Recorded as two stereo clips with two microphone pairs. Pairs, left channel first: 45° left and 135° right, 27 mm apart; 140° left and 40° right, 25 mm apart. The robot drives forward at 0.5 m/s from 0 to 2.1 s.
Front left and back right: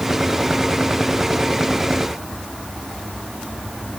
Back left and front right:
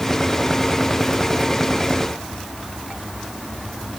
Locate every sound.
Only background noise.